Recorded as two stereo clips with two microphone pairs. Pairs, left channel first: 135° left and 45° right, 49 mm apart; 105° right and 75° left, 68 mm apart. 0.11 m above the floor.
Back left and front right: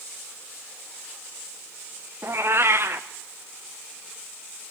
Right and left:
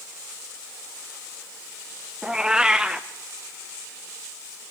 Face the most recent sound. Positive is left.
turn(degrees=-10)